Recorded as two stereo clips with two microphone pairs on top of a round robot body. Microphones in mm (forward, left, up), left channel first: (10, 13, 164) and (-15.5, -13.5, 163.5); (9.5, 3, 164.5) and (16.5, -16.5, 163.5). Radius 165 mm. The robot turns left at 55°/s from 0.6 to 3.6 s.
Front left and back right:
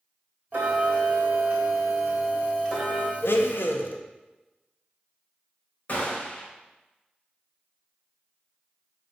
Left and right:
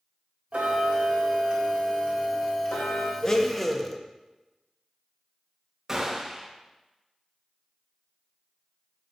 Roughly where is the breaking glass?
No breaking glass in this recording.